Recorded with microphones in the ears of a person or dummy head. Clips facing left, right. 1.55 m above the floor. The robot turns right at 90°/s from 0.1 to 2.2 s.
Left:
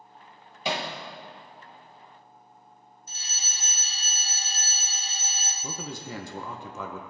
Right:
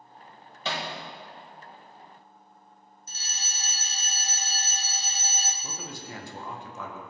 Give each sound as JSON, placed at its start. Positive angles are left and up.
{"t": 0.7, "sound": "hammering", "side_deg": 20, "distance_m": 1.5}
{"t": 3.1, "sound": "a fire alarm", "side_deg": -40, "distance_m": 1.5}
{"t": 5.6, "sound": "a man speaking", "side_deg": 65, "distance_m": 1.4}